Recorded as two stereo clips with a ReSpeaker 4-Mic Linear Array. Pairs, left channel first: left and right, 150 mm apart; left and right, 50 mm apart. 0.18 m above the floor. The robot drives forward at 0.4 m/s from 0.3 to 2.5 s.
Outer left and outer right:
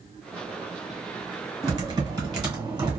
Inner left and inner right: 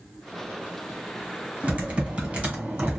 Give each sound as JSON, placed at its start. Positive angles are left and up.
{"t": 1.6, "sound": "typing on a keyboard", "side_deg": -25, "distance_m": 1.4}